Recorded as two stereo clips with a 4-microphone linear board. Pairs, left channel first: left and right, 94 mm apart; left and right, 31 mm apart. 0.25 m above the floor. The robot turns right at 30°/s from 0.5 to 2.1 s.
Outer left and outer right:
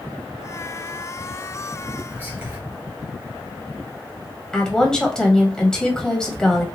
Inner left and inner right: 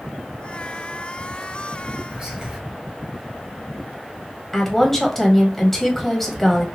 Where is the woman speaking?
5° left (ahead or behind), 1.0 m.